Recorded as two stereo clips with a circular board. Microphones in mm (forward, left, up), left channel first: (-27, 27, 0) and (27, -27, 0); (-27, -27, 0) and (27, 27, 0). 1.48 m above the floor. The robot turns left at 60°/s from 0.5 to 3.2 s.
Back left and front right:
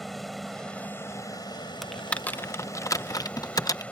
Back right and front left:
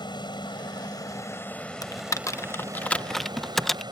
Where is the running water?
135° right; by 3.9 s 60° left.